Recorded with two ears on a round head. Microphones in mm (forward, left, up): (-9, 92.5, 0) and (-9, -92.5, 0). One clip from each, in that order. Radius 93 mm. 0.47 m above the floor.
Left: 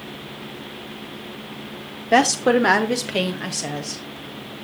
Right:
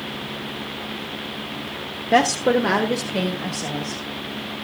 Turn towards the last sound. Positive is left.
turn(degrees=65)  # may be behind; listen again after turning